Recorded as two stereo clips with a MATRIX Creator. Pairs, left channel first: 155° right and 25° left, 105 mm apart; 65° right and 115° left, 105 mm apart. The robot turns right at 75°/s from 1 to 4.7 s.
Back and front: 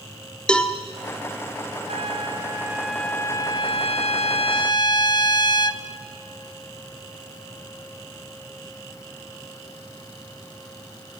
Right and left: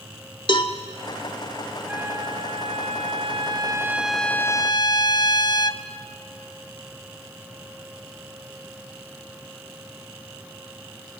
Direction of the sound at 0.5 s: 80° right.